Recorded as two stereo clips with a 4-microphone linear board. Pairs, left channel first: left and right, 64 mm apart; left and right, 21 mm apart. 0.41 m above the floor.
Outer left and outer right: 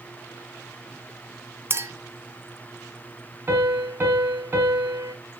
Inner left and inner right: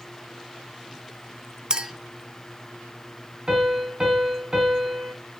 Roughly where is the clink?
Right.